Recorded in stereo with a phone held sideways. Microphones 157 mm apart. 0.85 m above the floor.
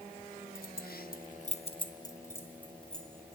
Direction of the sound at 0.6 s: 70° left (ahead or behind).